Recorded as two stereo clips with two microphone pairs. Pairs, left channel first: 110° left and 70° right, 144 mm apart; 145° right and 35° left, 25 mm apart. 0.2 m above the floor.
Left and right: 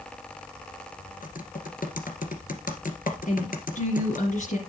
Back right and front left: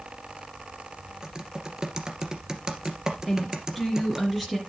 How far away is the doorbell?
No doorbell in this recording.